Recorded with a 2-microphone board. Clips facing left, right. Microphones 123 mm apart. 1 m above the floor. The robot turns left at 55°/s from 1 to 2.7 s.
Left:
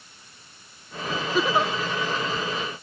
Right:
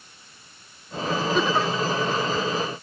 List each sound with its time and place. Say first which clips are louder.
1.3 s a giggle: left 2 dB; 5° left (ahead or behind); by 1.7 s 25° left (ahead or behind)